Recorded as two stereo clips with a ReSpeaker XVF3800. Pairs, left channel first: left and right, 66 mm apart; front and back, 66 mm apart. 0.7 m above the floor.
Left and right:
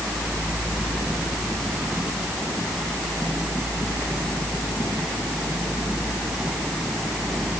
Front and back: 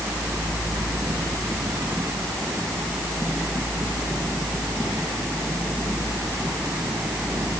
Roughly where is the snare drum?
No snare drum in this recording.